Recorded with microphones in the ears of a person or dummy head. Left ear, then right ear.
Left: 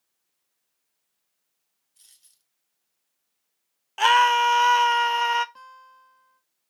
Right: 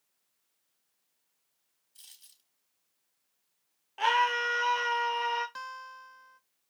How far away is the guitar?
About 1.0 m.